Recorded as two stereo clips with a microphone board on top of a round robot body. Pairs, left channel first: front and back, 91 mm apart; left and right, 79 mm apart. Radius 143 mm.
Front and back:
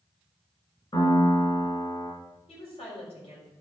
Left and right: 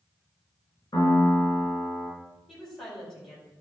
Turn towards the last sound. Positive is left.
turn(degrees=5)